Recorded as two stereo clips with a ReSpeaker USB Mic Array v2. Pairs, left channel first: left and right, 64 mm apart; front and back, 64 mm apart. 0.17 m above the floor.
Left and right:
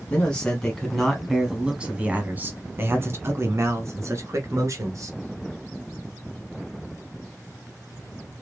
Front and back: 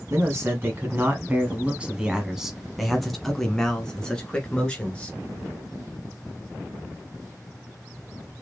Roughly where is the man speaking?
Behind left.